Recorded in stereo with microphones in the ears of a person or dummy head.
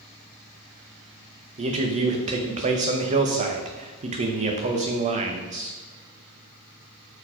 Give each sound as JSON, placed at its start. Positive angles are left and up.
{"t": 1.6, "sound": "a man speaking", "side_deg": -30, "distance_m": 0.9}